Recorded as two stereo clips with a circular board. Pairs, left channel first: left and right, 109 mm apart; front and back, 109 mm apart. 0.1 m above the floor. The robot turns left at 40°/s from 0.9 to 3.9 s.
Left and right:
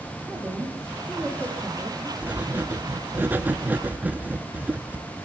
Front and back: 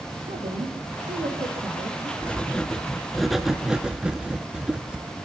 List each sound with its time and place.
0.3 s a woman speaking: 170° right, 4.5 m; by 2.1 s 140° left, 4.5 m
2.2 s writing: 50° right, 0.8 m; by 5.0 s 120° right, 0.8 m